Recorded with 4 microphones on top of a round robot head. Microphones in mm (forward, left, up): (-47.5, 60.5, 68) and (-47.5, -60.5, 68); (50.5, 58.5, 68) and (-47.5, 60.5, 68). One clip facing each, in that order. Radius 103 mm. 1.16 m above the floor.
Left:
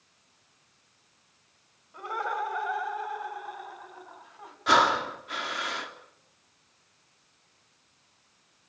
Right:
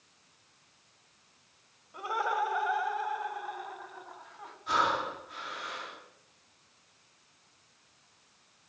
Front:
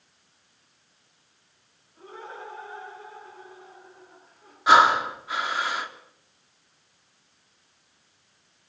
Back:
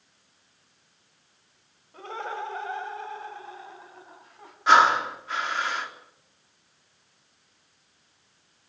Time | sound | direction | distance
1.9 | laughter | 170° right | 5.5 m
4.7 | breathing | 80° left | 3.5 m